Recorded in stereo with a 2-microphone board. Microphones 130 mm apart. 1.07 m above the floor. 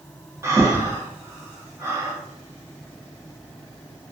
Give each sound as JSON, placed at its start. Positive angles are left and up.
{"t": 0.4, "sound": "breathing", "side_deg": -20, "distance_m": 0.6}